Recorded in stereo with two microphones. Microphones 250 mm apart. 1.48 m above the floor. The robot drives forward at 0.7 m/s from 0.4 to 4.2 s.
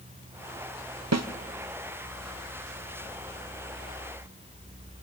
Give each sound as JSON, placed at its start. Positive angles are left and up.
{"t": 1.1, "sound": "a snare drum", "side_deg": -80, "distance_m": 0.8}